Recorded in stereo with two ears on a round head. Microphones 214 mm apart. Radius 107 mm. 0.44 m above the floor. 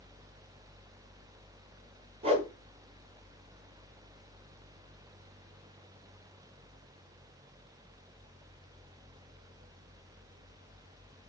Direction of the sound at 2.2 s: 25° right (ahead or behind).